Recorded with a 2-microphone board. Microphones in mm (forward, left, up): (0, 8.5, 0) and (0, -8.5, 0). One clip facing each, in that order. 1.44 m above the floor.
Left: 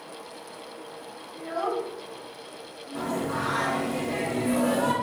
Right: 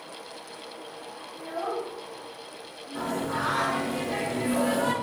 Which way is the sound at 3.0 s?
5° right (ahead or behind).